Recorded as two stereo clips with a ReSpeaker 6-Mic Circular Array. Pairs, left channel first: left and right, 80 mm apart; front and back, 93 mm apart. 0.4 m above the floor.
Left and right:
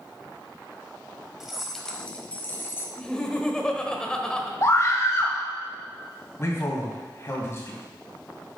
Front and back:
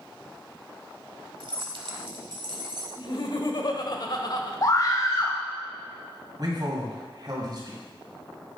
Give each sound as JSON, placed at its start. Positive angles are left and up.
{"t": 1.4, "sound": "keys jangling", "azimuth_deg": -175, "distance_m": 1.1}
{"t": 3.0, "sound": "laughter", "azimuth_deg": 10, "distance_m": 1.3}
{"t": 4.6, "sound": "a scream", "azimuth_deg": 40, "distance_m": 1.8}
{"t": 6.4, "sound": "a man speaking", "azimuth_deg": 140, "distance_m": 2.5}